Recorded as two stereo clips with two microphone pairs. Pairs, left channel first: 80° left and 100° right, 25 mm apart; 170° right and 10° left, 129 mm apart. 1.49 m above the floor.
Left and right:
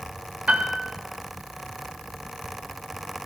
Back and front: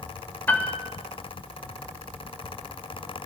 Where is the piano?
95° right, 3.5 m.